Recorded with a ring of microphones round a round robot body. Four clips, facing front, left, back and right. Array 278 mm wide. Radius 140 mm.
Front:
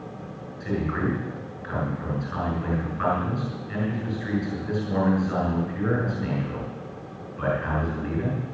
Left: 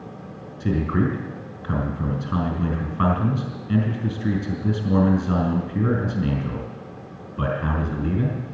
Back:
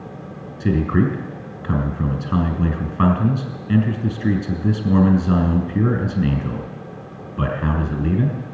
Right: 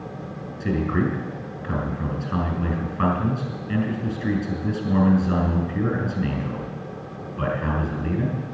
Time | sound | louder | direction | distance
0.6 | a man speaking | left 1 dB, back 8 dB | 175° left | 4 m